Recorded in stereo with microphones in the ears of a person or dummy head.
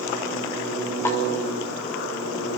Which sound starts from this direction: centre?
A snare drum, at 1.1 s.